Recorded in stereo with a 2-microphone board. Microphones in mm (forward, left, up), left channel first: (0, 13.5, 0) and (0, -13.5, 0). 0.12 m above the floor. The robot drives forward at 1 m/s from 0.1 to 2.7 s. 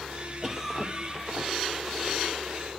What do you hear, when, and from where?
0.4 s a cough: 20° right (ahead or behind), 2.5 m; by 1.8 s 15° right (ahead or behind), 3.5 m